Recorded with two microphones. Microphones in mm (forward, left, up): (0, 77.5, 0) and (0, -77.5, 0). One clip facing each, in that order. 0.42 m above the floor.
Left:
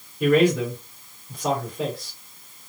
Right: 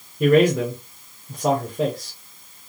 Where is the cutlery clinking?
No cutlery clinking in this recording.